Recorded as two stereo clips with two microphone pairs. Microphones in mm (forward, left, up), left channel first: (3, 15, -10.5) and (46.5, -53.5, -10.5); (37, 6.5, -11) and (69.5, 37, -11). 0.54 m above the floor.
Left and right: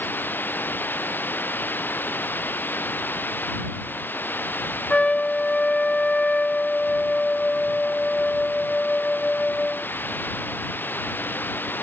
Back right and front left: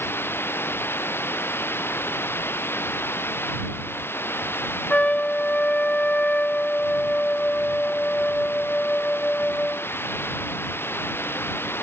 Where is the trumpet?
170° right.